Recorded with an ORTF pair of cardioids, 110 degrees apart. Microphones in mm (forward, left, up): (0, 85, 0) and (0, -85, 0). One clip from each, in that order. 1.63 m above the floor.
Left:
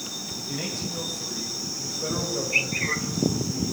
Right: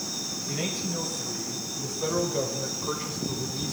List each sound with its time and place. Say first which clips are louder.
0.5 s a man speaking: even; 20° right, 7.5 m; by 3.7 s 35° right, 5 m